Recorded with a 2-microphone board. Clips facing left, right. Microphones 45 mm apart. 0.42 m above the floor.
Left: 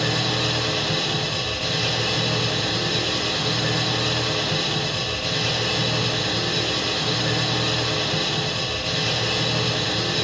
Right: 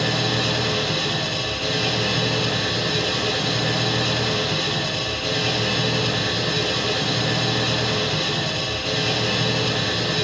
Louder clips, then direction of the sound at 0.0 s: Right 1 dB; 5° right (ahead or behind).